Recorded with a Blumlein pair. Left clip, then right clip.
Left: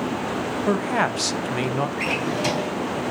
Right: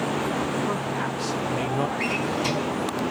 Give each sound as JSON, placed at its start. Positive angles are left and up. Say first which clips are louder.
{"t": 0.7, "sound": "a man speaking", "louder": "left 5 dB", "azimuth_deg": 65, "distance_m": 1.0}
{"t": 2.0, "sound": "a drawer", "louder": "left 2 dB", "azimuth_deg": 70, "distance_m": 3.0}